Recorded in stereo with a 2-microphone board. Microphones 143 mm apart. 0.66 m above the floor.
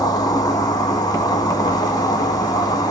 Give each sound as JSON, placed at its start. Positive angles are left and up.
{"t": 0.0, "sound": "an insect", "side_deg": 30, "distance_m": 1.0}